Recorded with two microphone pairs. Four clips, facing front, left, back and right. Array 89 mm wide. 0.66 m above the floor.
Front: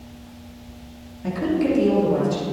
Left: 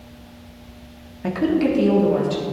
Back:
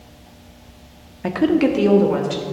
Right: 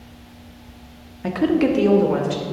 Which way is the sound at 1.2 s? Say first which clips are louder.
Right 1 dB, back 5 dB; 175° left.